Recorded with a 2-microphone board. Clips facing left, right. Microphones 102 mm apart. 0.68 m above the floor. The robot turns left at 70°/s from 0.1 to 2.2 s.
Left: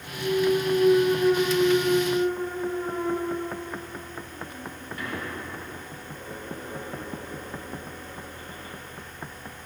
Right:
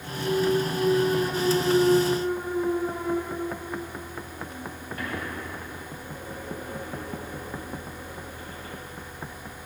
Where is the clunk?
85° left, 3 m; by 8.8 s 55° right (ahead or behind), 3 m.